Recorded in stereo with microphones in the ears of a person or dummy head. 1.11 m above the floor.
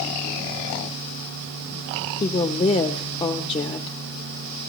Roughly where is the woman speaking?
Left.